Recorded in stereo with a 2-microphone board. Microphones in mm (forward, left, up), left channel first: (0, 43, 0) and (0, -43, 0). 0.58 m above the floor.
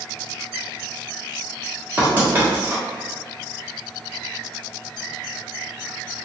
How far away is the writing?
About 1.3 m.